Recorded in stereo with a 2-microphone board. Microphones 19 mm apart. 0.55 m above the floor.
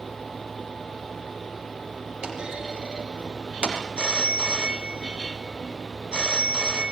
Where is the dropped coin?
I don't hear a dropped coin.